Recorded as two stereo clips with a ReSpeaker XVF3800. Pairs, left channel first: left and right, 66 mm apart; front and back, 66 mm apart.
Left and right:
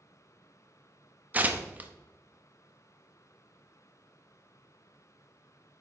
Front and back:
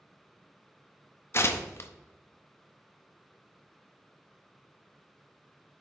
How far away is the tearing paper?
About 0.5 m.